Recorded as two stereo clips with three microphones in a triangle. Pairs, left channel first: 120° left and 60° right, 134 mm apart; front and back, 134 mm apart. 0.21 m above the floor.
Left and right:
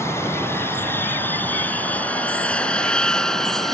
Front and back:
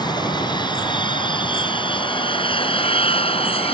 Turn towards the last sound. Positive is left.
turn(degrees=30)